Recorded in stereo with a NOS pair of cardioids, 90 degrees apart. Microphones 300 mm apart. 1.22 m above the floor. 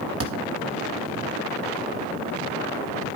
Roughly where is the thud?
Ahead right.